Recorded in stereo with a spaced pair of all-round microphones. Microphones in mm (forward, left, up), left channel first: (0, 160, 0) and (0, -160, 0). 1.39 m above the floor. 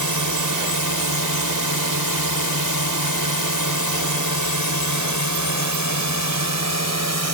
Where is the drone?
75° right (ahead or behind); by 7.3 s 55° right (ahead or behind).